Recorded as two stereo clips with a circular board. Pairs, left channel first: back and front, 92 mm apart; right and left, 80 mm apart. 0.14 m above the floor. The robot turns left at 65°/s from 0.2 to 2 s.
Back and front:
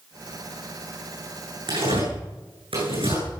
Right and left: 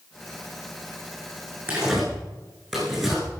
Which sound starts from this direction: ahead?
Tearing paper, at 1.7 s.